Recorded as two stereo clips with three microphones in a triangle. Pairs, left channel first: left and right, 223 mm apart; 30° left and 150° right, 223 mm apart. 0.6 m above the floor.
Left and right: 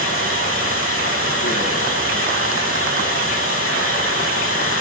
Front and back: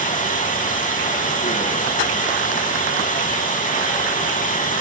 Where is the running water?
85° left, 3.5 m.